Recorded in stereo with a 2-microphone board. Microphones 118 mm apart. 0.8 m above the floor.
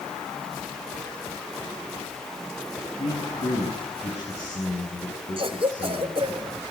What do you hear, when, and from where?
3.0 s a man speaking: 65° left (ahead or behind), 9 m
5.4 s a cough: 50° right (ahead or behind), 2.5 m